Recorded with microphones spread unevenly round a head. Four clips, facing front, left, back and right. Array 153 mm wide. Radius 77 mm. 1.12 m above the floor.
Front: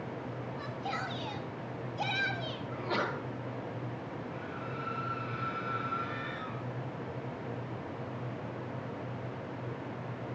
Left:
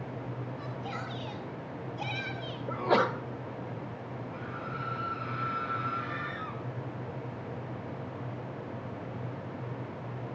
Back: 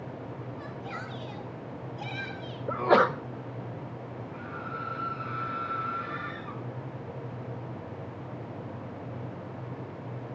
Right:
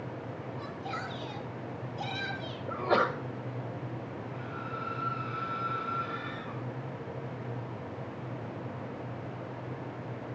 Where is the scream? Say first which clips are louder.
Left 1 dB, back 2 dB; 90° left, 9 m.